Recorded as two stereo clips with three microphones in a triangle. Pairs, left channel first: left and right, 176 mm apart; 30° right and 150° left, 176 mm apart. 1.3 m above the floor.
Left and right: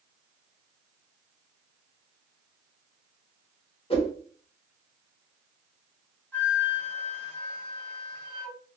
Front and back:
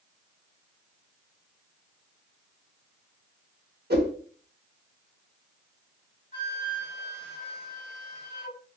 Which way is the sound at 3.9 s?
145° left.